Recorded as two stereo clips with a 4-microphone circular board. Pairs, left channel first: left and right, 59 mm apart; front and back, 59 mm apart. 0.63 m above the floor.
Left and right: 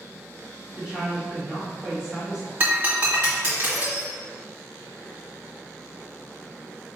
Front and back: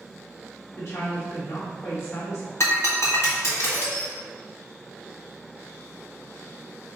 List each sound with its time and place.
0.8 s a woman speaking: 15° right, 1.6 m
2.6 s breaking glass: 35° right, 1.9 m